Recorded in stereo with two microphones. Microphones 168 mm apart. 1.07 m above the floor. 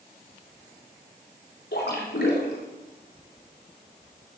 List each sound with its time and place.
1.7 s a splash: 80° left, 4 m